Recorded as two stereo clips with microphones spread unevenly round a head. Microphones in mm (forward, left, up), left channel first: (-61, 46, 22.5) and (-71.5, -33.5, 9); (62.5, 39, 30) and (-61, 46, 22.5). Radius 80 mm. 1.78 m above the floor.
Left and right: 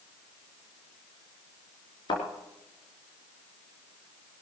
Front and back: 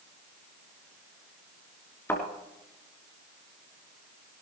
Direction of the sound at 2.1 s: 65° left.